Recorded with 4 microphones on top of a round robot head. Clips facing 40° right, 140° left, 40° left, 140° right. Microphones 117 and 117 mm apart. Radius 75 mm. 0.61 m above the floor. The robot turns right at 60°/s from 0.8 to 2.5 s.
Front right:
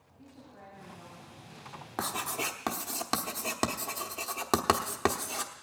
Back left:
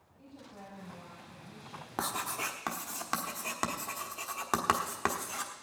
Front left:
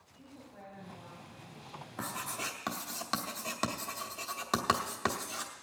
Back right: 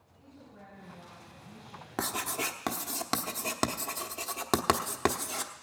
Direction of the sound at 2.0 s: 135° right.